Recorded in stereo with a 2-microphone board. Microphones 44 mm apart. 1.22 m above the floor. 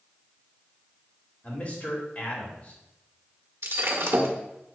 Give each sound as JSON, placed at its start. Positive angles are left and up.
{"t": 1.4, "sound": "a man speaking", "side_deg": 30, "distance_m": 2.5}
{"t": 3.6, "sound": "breaking glass", "side_deg": -75, "distance_m": 1.3}